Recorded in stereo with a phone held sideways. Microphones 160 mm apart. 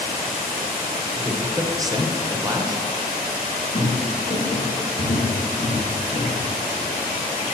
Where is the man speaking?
25° right (ahead or behind), 1.0 m.